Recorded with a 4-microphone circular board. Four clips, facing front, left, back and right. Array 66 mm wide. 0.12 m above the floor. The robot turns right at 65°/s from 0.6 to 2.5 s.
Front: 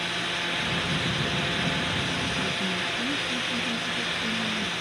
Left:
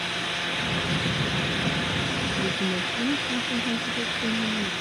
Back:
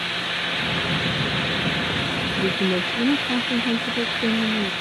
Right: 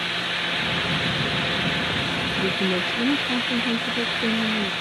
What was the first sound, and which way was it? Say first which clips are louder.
A woman speaking: right 6 dB, back 7 dB; 165° right.